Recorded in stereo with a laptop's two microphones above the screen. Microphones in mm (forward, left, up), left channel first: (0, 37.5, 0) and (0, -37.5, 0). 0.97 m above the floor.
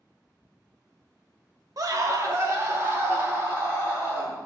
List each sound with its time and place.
1.8 s a scream: 55° right (ahead or behind), 0.7 m; by 4.4 s 30° right (ahead or behind), 3 m